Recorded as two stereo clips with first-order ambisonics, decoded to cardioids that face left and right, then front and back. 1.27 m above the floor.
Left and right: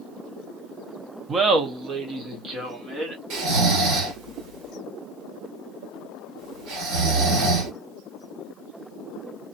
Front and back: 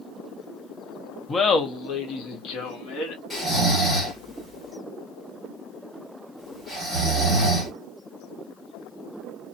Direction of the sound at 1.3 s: 55° right.